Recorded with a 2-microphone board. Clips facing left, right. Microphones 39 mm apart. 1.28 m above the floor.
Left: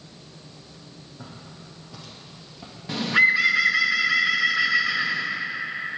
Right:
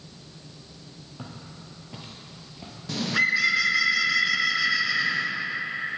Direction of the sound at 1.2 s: 55° right (ahead or behind).